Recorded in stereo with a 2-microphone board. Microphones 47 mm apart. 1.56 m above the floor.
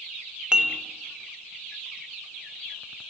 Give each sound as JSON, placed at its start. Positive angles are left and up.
{"t": 0.5, "sound": "dishes clattering", "side_deg": -20, "distance_m": 0.5}